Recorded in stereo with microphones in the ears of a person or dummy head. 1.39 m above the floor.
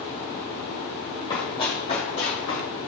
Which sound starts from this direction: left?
Running footsteps, at 1.3 s.